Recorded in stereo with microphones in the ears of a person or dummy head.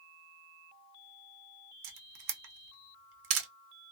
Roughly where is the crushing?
I don't hear crushing.